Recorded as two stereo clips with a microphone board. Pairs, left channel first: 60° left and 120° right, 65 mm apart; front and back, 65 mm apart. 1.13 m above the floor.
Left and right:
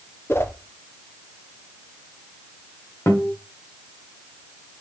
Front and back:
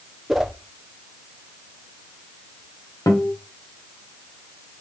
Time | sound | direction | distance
0.3 | a whoosh | 95° left | 0.8 m
3.1 | a guitar | 20° left | 1.5 m